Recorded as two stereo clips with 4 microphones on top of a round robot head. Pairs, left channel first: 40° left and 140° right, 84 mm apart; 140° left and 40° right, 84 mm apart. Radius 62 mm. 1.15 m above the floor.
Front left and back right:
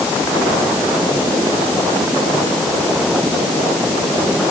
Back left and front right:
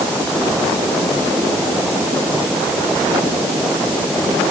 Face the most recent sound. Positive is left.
No sound to turn to.